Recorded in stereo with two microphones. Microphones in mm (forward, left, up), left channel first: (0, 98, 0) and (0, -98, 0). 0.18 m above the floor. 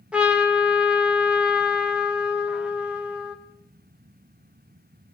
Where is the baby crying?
No baby crying in this recording.